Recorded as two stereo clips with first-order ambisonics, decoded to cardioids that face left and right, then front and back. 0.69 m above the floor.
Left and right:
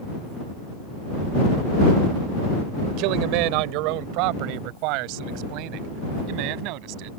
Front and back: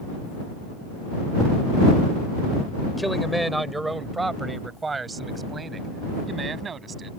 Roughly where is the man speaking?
Right.